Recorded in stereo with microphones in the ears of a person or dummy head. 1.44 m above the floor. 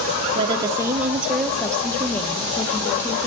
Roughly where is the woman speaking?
Right.